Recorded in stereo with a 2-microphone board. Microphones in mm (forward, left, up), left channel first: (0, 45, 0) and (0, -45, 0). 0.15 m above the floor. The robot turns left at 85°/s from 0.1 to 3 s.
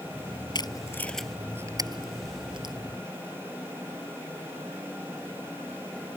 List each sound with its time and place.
0.6 s tape being pulled: 50° left (ahead or behind); by 2.8 s 45° right (ahead or behind)